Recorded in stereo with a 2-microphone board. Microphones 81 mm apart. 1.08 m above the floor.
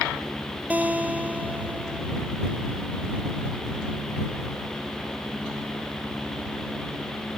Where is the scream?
I don't hear a scream.